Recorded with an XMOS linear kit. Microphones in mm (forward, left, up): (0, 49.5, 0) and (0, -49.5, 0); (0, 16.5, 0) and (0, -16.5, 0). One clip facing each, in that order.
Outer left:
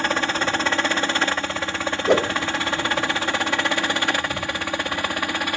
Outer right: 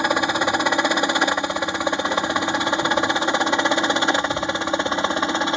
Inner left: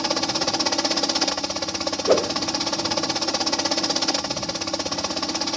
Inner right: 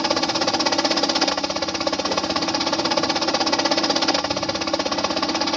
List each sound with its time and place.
0.0 s a helicopter: 15° right (ahead or behind); by 5.6 s 20° right (ahead or behind)
2.1 s a whoosh: 70° left (ahead or behind)